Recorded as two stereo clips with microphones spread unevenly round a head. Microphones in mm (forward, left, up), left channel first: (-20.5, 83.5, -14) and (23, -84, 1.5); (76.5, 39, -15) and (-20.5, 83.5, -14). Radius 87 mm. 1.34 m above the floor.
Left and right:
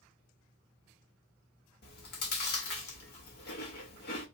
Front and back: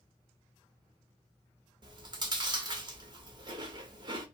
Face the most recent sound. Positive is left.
turn(degrees=120)